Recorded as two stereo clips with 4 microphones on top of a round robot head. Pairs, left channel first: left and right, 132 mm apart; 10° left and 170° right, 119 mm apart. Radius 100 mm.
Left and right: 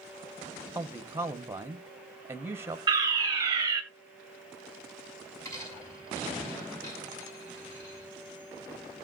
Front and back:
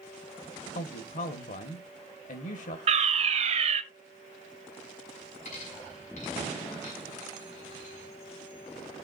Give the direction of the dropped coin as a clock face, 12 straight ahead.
11 o'clock.